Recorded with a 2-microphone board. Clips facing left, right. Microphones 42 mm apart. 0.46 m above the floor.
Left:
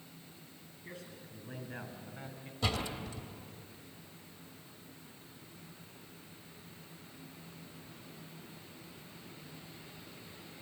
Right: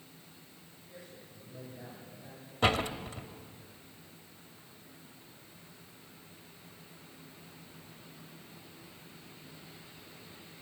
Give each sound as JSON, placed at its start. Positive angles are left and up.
{"t": 0.8, "sound": "a man speaking", "side_deg": 80, "distance_m": 7.0}
{"t": 2.6, "sound": "a door slam", "side_deg": -55, "distance_m": 1.2}